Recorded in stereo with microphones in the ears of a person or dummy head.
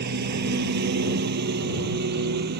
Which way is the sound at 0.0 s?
65° right (ahead or behind).